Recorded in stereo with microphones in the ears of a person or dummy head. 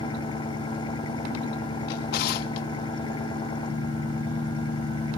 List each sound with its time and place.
0.0 s an engine running: 25° left (ahead or behind)
1.9 s a drawer: 60° left (ahead or behind)